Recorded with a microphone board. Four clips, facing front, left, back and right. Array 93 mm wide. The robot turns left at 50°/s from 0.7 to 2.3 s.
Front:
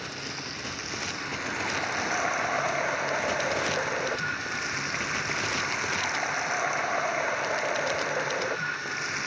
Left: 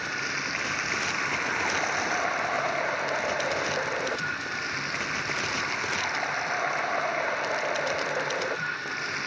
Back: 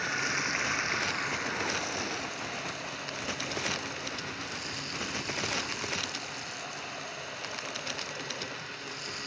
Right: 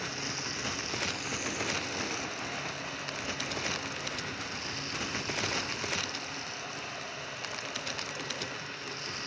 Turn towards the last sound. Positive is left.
turn(degrees=45)